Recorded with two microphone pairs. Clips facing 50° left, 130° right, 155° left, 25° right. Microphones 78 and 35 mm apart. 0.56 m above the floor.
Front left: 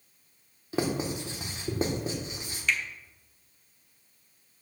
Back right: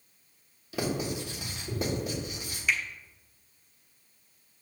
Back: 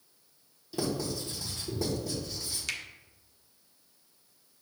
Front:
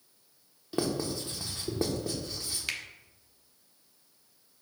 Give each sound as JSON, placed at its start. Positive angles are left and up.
{"t": 0.7, "sound": "writing", "azimuth_deg": 0, "distance_m": 1.2}
{"t": 2.7, "sound": "a finger snap", "azimuth_deg": -75, "distance_m": 0.8}